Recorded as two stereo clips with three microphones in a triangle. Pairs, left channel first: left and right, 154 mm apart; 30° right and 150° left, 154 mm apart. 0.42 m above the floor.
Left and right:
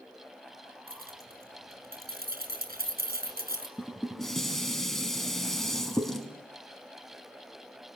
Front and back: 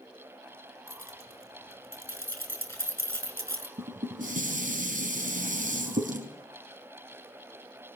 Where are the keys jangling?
105° right, 4 m.